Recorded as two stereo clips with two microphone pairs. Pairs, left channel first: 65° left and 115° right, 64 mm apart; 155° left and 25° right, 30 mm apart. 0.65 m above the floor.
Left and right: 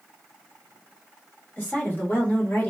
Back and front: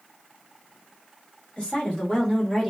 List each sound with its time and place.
1.6 s a woman speaking: 120° left, 1.5 m; by 2.7 s 80° left, 1.3 m